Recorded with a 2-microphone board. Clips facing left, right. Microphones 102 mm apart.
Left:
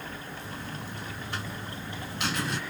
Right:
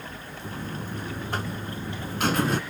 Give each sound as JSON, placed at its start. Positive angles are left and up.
{"t": 0.4, "sound": "a buzzer", "side_deg": -50, "distance_m": 0.5}